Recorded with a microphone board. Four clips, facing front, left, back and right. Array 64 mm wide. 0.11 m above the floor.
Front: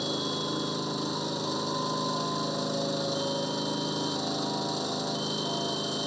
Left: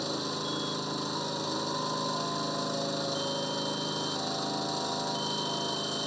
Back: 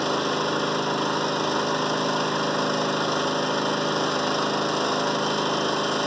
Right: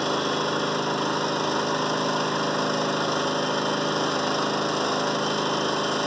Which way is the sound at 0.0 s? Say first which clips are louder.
Right 10 dB, back 8 dB; 135° right.